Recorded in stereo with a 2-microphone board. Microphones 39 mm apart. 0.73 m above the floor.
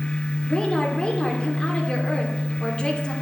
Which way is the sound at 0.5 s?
25° left (ahead or behind).